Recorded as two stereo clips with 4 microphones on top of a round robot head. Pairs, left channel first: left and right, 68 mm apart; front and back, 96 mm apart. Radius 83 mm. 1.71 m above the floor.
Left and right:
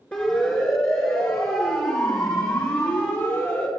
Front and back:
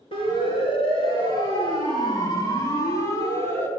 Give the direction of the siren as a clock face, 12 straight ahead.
11 o'clock.